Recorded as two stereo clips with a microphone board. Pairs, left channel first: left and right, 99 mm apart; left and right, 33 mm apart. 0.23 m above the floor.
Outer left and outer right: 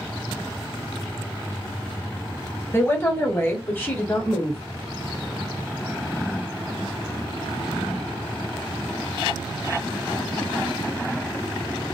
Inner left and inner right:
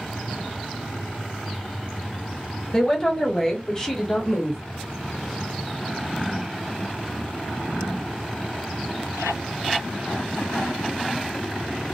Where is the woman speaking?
25° left (ahead or behind), 1.3 m; by 4.6 s 10° left (ahead or behind), 1.2 m.